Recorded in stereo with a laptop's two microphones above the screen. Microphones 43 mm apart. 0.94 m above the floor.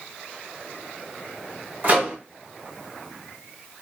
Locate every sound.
1.8 s a microwave: 45° right (ahead or behind), 1.7 m